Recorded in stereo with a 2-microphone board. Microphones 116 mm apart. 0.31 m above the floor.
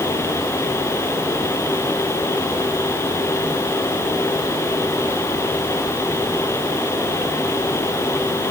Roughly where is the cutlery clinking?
I don't hear cutlery clinking.